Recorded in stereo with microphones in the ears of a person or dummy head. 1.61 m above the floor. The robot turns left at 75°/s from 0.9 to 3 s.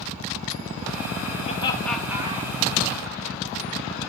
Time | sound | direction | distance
1.4 | laughter | 40° left (ahead or behind) | 1.1 m